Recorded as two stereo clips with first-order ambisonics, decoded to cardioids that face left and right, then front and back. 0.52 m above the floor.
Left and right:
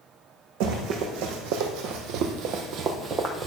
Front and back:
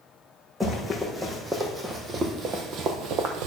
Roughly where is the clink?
No clink in this recording.